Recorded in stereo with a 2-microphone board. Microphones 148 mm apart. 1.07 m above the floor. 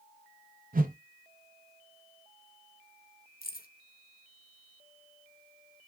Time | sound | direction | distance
0.7 | a whoosh | 65° right (ahead or behind) | 0.6 m
3.4 | keys jangling | 70° left (ahead or behind) | 0.6 m